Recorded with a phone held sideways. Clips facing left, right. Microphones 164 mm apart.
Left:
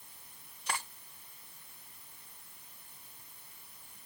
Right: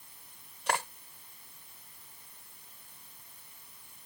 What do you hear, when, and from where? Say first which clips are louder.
0.7 s cutlery clinking: right 7 dB; 80° right